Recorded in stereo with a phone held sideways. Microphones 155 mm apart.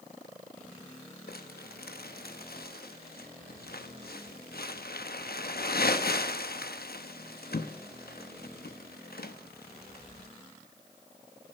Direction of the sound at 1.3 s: 80° left.